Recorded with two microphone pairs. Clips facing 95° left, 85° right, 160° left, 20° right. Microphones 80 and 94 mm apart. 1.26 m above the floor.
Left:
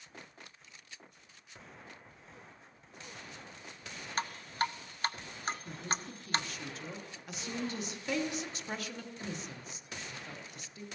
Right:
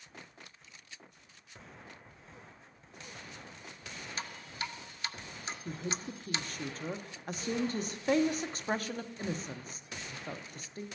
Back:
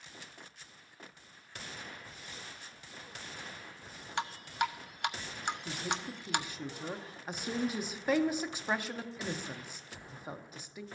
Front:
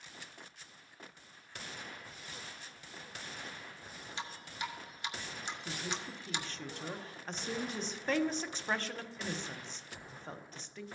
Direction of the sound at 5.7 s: 125° right.